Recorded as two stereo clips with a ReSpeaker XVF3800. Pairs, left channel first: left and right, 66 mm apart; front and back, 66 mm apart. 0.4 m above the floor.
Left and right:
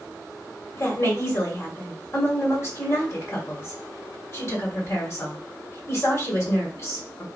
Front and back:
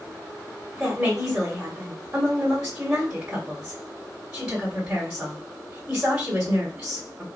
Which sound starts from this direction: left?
A woman speaking, at 0.8 s.